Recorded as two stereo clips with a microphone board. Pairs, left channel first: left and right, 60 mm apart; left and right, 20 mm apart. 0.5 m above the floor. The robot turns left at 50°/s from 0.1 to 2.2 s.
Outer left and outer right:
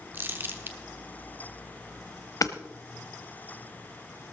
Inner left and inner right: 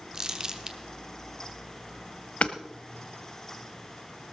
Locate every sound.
0.1 s crumpling: 35° right (ahead or behind), 1.2 m
2.4 s hammering: 70° left (ahead or behind), 0.9 m